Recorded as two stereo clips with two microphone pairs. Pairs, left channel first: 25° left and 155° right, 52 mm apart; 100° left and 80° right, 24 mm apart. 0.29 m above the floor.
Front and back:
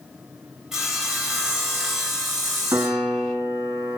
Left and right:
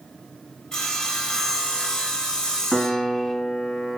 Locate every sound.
0.7 s sawing: 130° left, 1.3 m
2.7 s a piano: 175° right, 0.9 m